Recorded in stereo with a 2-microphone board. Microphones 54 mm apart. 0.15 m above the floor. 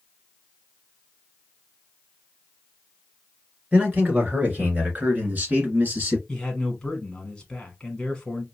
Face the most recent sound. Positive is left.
turn(degrees=15)  # may be behind; listen again after turning